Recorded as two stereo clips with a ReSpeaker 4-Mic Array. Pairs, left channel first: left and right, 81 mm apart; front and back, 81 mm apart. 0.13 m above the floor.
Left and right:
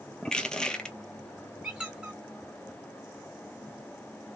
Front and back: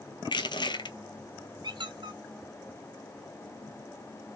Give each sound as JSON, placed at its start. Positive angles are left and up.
{"t": 0.2, "sound": "crushing", "azimuth_deg": 10, "distance_m": 0.6}
{"t": 1.6, "sound": "a squeak", "azimuth_deg": -170, "distance_m": 0.6}